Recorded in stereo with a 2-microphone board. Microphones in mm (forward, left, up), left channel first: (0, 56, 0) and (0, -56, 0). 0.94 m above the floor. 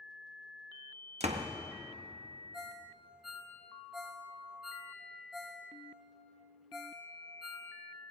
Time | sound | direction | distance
1.2 | a door slam | 75° right (ahead or behind) | 0.9 m
2.5 | a ringtone | 5° right (ahead or behind) | 1.9 m